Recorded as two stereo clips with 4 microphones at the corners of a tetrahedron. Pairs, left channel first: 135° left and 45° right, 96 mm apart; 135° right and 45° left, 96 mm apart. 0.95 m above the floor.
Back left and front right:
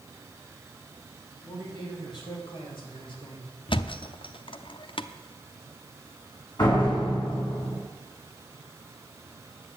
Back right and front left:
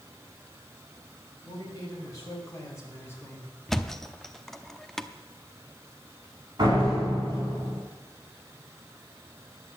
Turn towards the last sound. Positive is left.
turn(degrees=90)